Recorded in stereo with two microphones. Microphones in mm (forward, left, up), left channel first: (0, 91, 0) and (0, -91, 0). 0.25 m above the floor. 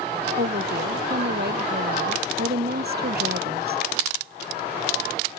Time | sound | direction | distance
0.4 | a woman speaking | 65° right (ahead or behind) | ?